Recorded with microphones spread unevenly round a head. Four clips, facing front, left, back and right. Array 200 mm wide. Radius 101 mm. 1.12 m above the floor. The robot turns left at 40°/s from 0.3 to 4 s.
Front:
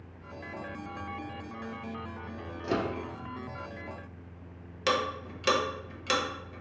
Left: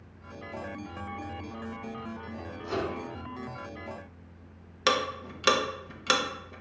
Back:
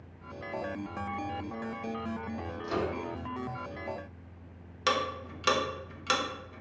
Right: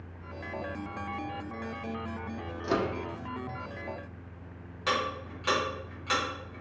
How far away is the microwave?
About 0.6 m.